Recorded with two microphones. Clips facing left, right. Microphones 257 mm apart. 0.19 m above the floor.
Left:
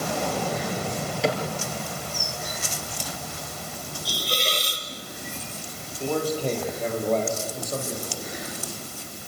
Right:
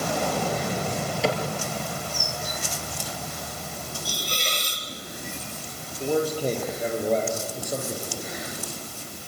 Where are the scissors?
No scissors in this recording.